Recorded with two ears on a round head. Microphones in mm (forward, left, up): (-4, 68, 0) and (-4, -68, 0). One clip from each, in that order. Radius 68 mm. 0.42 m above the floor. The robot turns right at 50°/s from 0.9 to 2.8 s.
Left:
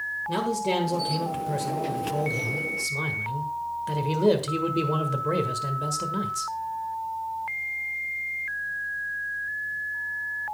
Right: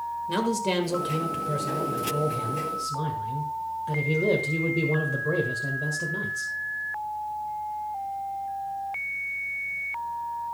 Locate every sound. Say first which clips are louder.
0.3 s a man speaking: even; 25° right, 1.6 m; by 6.5 s 70° left, 1.6 m